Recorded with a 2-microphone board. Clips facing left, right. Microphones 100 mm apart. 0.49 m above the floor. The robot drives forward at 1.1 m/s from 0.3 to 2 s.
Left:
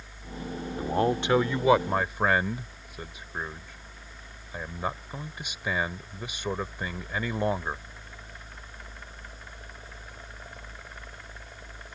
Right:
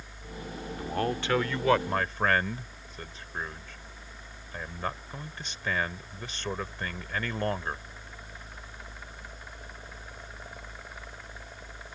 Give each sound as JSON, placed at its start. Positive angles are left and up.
{"t": 0.8, "sound": "a man speaking", "side_deg": 25}